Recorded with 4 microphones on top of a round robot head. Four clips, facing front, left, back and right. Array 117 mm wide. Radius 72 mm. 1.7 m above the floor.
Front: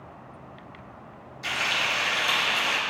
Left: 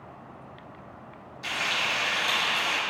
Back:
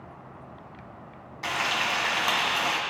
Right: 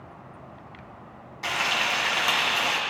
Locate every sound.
1.4 s frying: 145° right, 1.4 m